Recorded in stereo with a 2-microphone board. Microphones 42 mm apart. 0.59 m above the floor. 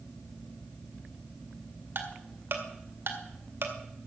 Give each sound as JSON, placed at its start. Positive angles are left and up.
{"t": 1.9, "sound": "ticking", "side_deg": -60, "distance_m": 2.0}